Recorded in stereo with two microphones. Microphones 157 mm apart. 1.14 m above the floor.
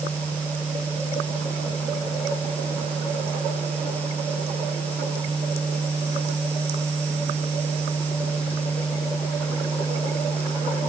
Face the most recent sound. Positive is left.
No sound to turn to.